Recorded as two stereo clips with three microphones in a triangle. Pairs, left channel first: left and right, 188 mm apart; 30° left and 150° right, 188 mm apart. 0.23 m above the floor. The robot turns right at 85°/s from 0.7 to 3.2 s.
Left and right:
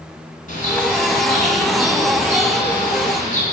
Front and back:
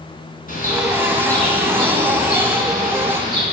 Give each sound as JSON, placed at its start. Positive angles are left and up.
{"t": 0.5, "sound": "a bird", "azimuth_deg": 55, "distance_m": 2.5}